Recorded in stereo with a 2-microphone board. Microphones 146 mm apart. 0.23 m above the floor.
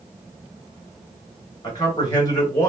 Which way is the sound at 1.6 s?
30° left (ahead or behind).